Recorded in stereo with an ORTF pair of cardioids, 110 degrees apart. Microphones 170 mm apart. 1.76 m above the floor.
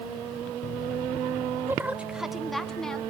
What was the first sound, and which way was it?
A woman speaking, 15° right.